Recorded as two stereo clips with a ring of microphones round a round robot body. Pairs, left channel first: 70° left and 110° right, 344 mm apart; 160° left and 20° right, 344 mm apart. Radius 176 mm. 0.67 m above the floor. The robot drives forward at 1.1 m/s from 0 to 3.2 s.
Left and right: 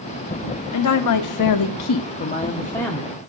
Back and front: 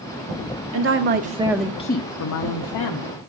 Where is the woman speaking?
25° left, 1.5 m; by 3.2 s 155° left, 1.7 m.